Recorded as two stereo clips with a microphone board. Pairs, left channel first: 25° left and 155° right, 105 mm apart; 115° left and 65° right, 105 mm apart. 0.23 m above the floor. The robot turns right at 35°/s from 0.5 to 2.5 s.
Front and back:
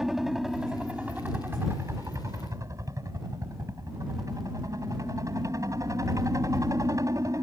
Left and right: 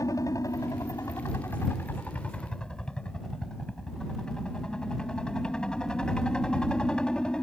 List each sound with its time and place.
0.0 s a helicopter: 120° left; by 7.4 s 170° right